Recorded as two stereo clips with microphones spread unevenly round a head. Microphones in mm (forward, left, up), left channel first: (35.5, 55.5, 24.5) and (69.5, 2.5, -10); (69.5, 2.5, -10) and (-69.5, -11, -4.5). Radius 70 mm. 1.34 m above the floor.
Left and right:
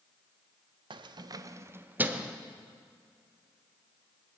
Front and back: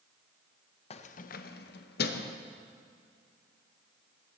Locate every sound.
0.9 s keys jangling: 40° right, 0.6 m; by 2.4 s 30° left, 1.0 m